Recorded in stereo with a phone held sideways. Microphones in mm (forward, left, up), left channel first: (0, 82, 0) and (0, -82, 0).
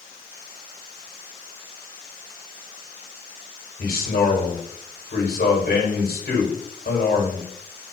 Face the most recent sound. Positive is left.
turn(degrees=80)